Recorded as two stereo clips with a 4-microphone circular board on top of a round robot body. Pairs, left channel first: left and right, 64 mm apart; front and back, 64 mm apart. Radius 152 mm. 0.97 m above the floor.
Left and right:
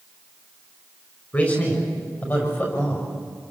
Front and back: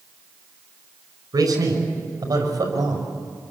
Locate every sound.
1.3 s a man speaking: 155° left, 6.5 m; by 3.1 s 145° left, 7 m